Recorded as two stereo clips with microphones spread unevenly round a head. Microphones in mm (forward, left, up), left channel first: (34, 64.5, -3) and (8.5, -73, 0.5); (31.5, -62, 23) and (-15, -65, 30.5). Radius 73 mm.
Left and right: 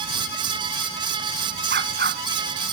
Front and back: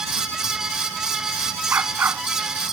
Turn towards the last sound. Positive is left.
turn(degrees=-135)